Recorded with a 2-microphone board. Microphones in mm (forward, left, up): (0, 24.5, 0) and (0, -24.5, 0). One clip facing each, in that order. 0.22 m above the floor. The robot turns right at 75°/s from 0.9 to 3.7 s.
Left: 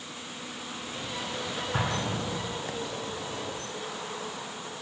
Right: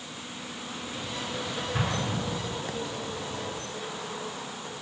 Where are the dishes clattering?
I don't hear dishes clattering.